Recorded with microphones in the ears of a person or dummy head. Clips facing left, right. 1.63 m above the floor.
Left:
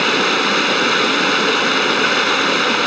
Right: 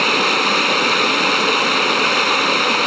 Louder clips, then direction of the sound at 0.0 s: Left 2 dB; 10° left (ahead or behind).